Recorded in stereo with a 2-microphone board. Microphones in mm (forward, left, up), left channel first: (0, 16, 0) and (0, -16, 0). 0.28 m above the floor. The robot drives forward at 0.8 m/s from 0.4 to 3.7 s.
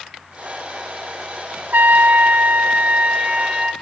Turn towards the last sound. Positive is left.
turn(degrees=-35)  # may be behind; listen again after turning